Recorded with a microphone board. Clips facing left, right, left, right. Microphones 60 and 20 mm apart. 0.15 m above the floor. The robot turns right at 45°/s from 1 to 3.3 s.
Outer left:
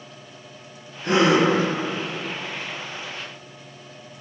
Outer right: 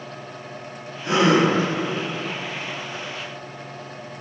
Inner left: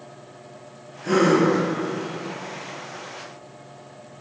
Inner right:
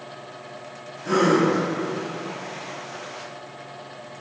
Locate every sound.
1.0 s a gasp: 50° left (ahead or behind), 0.9 m; by 1.5 s 35° left (ahead or behind), 0.9 m